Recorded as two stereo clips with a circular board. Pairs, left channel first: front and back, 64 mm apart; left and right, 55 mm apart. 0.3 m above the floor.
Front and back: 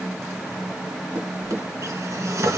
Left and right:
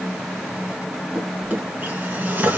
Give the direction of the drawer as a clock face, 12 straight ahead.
5 o'clock.